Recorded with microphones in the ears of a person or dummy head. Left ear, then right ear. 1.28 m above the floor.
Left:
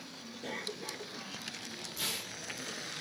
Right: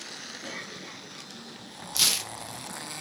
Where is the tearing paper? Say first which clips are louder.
Right 13 dB; 80° right, 1.3 m.